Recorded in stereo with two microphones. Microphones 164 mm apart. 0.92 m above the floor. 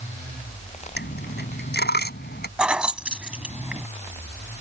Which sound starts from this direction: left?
A dropped coin, at 1.0 s.